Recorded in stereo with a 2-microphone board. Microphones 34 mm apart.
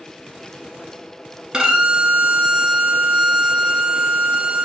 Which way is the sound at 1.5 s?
20° right (ahead or behind).